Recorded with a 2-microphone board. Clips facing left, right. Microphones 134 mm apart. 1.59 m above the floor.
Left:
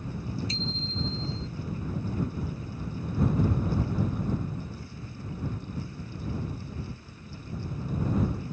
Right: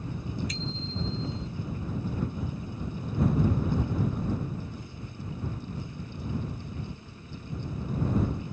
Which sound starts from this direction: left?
A bicycle bell, at 0.5 s.